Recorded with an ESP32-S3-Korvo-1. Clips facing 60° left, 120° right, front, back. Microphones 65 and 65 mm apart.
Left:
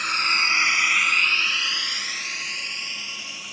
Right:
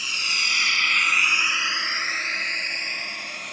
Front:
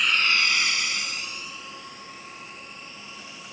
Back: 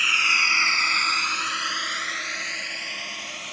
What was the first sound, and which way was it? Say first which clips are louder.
A drone: left 5 dB, back 1 dB; 95° left.